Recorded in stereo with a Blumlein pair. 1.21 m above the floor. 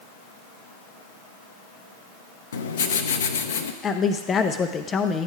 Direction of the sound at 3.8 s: 20° left.